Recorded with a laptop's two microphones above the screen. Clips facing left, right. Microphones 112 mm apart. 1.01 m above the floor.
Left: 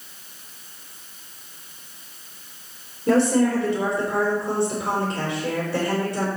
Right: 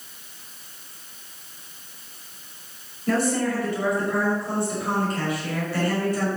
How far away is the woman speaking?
About 3.5 m.